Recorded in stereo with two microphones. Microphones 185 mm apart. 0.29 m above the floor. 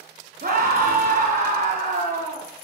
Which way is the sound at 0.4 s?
45° right (ahead or behind).